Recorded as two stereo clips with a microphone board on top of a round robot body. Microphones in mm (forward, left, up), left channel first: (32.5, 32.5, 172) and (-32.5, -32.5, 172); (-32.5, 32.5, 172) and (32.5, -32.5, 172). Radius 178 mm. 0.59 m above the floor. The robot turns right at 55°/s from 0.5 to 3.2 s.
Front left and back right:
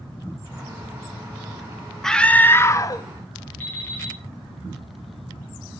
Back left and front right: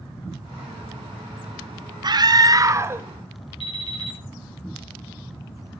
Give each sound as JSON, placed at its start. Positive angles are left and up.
{"t": 2.0, "sound": "a scream", "azimuth_deg": -40, "distance_m": 1.4}
{"t": 3.6, "sound": "an alarm clock", "azimuth_deg": 120, "distance_m": 6.5}